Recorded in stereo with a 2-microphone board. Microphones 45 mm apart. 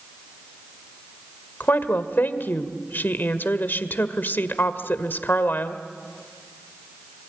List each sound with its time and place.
1.6 s a woman speaking: 50° left (ahead or behind), 1.8 m